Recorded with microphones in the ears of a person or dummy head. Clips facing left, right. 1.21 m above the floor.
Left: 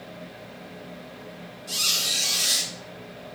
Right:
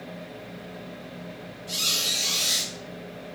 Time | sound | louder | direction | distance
1.7 | a squeak | right 2 dB | 5° left (ahead or behind) | 0.9 m